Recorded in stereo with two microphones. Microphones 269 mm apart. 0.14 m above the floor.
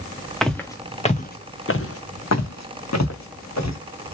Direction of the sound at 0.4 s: Centre (ahead or behind).